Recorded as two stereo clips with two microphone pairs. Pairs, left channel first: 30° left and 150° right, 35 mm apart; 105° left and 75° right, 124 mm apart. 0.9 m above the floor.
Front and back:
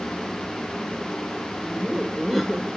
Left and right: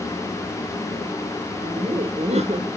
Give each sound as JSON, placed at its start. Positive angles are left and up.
{"t": 1.6, "sound": "laughter", "azimuth_deg": -60, "distance_m": 0.9}